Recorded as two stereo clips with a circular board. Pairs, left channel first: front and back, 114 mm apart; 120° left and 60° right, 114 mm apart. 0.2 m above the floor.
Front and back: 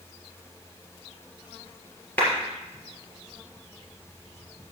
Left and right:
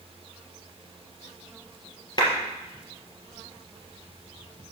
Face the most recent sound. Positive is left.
turn(degrees=70)